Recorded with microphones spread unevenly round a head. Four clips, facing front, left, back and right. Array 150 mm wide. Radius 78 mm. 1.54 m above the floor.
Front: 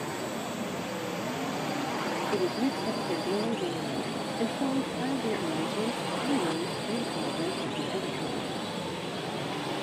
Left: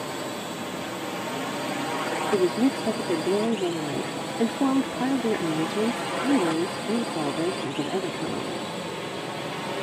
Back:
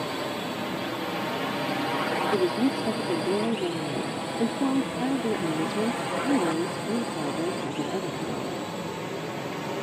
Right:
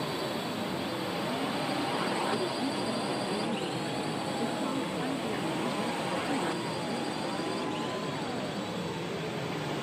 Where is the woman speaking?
115° left.